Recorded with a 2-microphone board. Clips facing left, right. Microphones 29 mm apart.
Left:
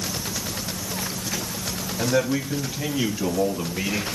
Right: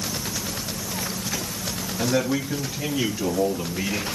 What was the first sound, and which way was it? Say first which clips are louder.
A man speaking: left 1 dB; 5° right (ahead or behind).